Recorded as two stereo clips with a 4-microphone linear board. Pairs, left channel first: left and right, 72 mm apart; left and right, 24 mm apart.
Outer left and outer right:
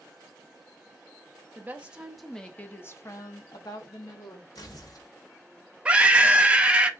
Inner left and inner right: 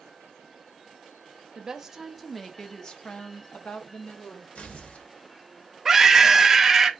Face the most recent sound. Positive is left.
turn(degrees=-15)  # may be behind; listen again after turning